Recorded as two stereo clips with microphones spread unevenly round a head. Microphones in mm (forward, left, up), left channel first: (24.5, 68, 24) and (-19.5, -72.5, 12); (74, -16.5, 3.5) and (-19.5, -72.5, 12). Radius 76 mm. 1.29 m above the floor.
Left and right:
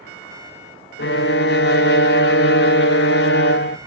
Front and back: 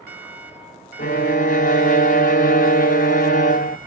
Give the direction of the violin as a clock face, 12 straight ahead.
10 o'clock.